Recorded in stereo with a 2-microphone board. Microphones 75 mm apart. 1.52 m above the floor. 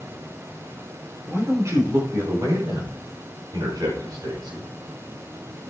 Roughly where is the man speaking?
Right.